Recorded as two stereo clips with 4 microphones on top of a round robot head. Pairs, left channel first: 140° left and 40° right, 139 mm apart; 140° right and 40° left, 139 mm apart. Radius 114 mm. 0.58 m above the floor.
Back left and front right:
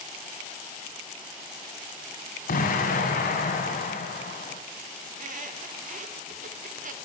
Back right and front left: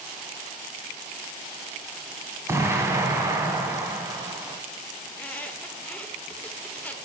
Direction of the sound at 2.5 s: 110° left.